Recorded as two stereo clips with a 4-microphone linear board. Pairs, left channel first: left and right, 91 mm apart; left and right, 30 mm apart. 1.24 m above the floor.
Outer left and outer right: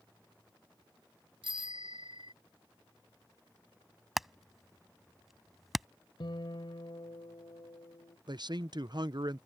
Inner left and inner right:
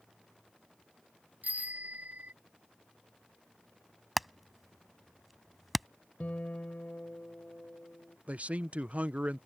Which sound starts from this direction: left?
A guitar, at 6.2 s.